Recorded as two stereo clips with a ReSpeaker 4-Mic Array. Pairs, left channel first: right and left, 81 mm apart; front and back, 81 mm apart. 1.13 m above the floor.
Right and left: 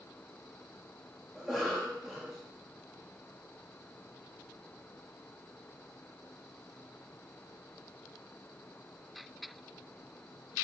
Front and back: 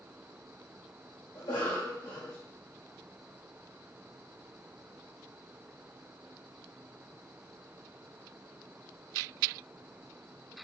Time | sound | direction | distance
1.4 | a cough | straight ahead | 0.7 m